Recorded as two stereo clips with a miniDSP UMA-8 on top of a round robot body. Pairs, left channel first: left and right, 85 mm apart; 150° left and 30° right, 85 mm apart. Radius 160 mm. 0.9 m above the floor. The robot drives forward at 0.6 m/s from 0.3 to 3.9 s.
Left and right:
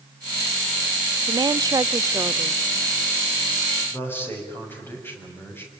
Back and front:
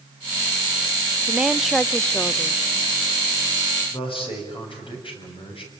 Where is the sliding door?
No sliding door in this recording.